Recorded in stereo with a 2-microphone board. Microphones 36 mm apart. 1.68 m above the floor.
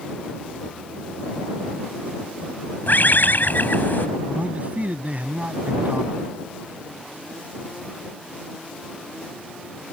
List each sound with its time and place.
2.9 s a bird: 65° left (ahead or behind)
4.3 s a man speaking: 45° right (ahead or behind)